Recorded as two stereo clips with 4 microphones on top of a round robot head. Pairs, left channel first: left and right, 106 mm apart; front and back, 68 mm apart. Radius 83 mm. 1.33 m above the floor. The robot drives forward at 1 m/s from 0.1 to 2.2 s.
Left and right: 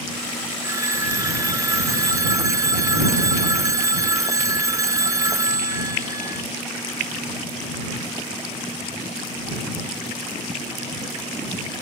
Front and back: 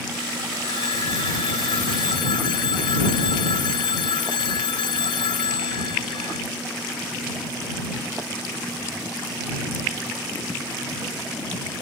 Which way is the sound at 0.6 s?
25° right.